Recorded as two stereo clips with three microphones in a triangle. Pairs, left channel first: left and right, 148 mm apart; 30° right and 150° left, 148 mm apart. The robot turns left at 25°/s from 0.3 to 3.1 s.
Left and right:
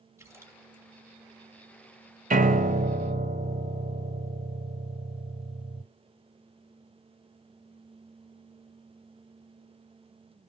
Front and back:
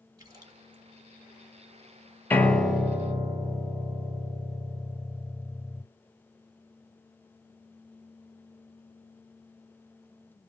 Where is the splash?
155° right, 1.6 m; by 0.8 s 165° right, 1.6 m.